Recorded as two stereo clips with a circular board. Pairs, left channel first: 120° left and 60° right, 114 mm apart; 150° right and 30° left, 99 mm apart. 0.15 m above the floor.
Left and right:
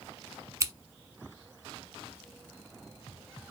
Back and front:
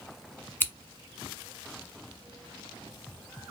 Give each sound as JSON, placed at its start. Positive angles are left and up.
{"t": 0.6, "sound": "scissors", "azimuth_deg": -100, "distance_m": 0.8}